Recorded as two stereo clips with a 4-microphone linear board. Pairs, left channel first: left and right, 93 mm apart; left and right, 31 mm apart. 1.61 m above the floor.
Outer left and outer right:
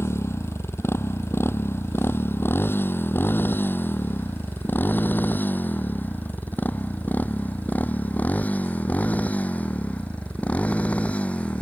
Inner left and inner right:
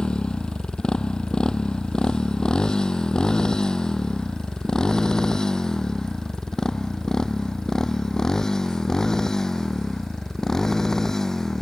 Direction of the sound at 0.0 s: 25° left (ahead or behind).